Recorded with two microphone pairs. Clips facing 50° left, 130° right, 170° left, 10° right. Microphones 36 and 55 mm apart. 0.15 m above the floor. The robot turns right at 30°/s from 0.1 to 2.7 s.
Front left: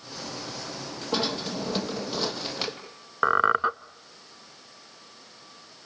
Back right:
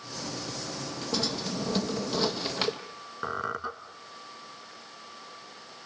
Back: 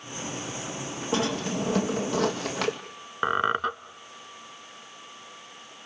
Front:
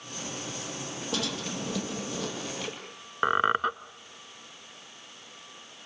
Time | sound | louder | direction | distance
1.1 | a drawer | front left 4 dB, back 7 dB | 105° left | 2 m
3.2 | a squeak | front left 11 dB, even | 70° left | 0.6 m